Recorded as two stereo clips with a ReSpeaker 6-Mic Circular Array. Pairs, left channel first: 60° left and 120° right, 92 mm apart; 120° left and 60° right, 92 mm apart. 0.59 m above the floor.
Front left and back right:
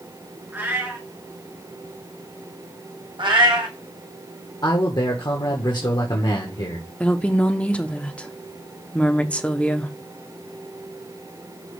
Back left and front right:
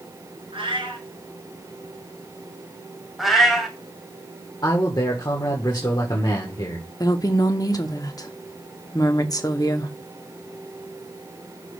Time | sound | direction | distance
0.5 | a cat meowing | 50° right | 1.8 m
3.2 | a cat meowing | 150° right | 1.5 m
4.6 | a man speaking | 85° left | 1.4 m
7.0 | a woman speaking | 130° left | 0.8 m